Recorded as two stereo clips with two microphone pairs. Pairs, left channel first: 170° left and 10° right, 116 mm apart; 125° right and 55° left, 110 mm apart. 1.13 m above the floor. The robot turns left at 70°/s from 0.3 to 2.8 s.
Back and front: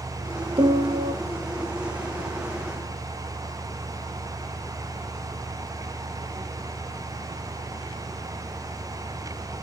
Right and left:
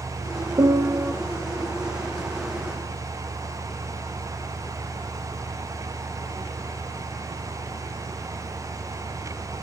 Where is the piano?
15° left, 0.6 m; by 1.1 s 25° right, 0.6 m.